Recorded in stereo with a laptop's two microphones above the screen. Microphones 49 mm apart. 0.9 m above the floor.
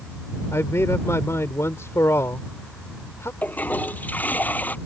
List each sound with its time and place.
0.5 s a man speaking: 70° left (ahead or behind)
3.4 s a toilet flushing: 35° left (ahead or behind)